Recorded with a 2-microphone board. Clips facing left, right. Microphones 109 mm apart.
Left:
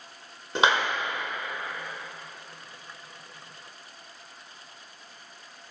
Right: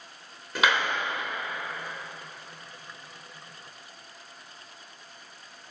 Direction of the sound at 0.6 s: 30° left (ahead or behind).